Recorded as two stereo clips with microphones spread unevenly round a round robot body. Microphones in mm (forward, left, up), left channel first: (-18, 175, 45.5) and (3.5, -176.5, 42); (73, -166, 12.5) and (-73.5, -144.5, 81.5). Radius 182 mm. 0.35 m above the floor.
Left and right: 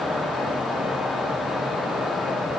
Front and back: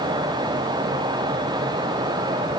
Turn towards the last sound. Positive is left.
No sound to turn to.